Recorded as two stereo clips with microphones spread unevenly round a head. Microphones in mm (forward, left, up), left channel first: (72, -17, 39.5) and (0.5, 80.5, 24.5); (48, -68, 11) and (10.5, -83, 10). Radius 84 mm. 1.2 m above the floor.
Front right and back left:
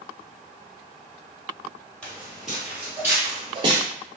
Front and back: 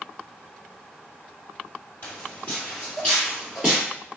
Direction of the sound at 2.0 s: 20° left.